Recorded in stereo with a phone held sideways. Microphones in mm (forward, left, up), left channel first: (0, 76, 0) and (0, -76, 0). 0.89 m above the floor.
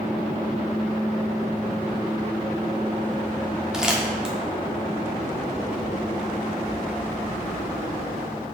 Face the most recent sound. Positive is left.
turn(degrees=-5)  # may be behind; listen again after turning